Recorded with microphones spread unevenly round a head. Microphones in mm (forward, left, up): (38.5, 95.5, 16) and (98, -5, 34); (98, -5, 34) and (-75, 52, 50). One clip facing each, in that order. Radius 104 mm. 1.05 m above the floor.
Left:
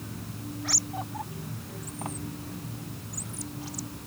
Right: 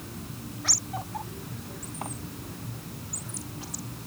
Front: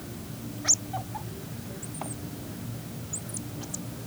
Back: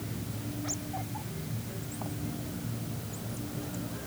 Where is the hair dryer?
No hair dryer in this recording.